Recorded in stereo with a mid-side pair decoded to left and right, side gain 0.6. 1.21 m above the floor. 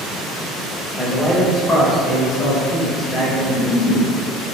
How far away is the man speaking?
About 1.2 m.